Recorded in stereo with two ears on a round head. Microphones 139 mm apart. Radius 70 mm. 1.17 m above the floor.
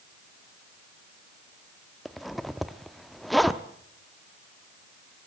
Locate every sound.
2.0 s a zipper: centre (ahead or behind), 0.8 m